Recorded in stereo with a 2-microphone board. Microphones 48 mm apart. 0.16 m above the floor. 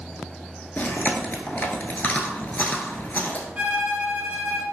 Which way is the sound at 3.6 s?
30° right (ahead or behind).